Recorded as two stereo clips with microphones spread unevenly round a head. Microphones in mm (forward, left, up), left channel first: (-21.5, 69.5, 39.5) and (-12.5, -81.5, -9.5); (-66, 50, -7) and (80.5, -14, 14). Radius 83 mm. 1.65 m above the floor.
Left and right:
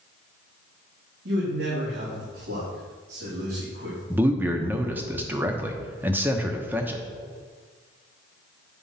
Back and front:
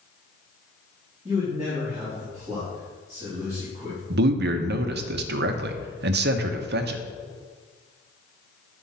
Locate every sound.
1.2 s a man speaking: 100° right, 3 m
4.1 s a man speaking: 5° right, 0.9 m